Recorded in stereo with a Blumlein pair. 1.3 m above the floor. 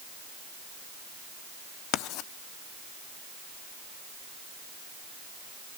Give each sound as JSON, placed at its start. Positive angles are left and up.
{"t": 1.9, "sound": "writing", "azimuth_deg": 40, "distance_m": 0.8}